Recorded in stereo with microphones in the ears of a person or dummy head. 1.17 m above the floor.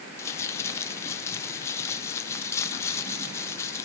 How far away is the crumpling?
About 0.6 m.